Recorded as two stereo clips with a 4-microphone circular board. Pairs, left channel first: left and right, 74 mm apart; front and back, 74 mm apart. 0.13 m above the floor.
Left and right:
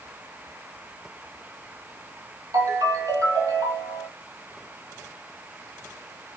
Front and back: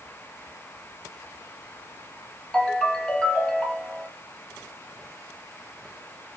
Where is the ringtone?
80° right, 1.4 m.